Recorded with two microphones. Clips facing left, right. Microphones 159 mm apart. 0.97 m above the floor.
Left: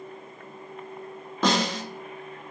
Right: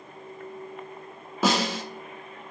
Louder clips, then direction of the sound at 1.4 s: Even; 5° right (ahead or behind).